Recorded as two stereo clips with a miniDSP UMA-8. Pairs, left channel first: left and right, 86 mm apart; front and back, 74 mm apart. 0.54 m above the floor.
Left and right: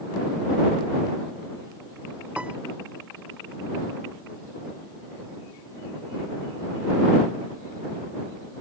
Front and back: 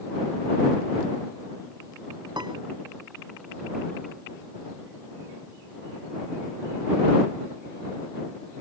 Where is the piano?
165° right.